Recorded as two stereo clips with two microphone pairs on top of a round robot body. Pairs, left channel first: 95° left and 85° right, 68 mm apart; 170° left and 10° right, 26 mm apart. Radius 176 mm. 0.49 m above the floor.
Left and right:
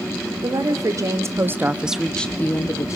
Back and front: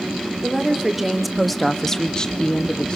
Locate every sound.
0.4 s a woman speaking: 80° right, 2 m; by 3.0 s 125° left, 1.5 m